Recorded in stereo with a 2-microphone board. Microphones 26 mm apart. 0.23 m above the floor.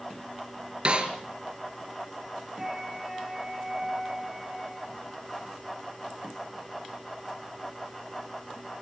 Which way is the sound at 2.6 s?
10° right (ahead or behind).